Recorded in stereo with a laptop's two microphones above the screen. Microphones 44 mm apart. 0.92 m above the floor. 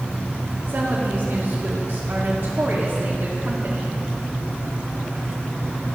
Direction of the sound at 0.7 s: 60° right (ahead or behind).